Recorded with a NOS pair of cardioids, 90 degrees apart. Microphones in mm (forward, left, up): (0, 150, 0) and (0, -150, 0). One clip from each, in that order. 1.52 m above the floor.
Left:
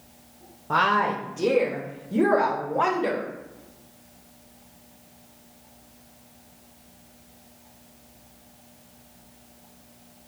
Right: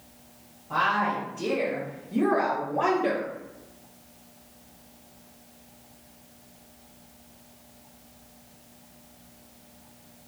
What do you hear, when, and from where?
0.7 s a woman speaking: 70° left, 0.8 m; by 3.3 s 35° left, 2.0 m